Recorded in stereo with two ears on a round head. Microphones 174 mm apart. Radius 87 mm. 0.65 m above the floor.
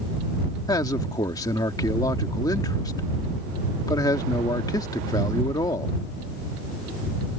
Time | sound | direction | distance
0.7 | a man speaking | 20° left (ahead or behind) | ?